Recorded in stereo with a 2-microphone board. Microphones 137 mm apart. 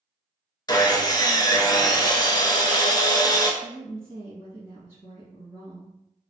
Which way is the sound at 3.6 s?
20° right (ahead or behind).